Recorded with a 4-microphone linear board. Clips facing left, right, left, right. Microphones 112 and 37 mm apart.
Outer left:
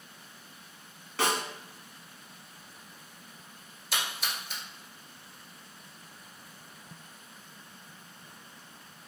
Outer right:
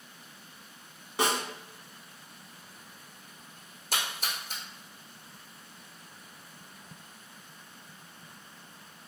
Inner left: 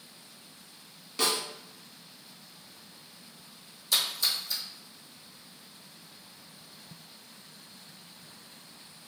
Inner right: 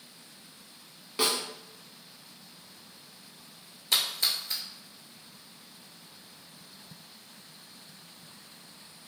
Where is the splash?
45° right (ahead or behind), 1.0 m.